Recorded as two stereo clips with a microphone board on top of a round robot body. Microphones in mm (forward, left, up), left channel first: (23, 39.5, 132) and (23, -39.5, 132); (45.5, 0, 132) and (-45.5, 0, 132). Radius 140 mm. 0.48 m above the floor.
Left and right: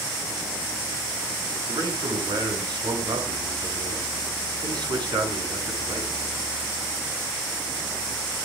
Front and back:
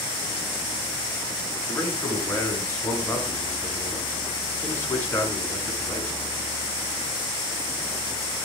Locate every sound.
1.7 s a man speaking: 65° right, 6 m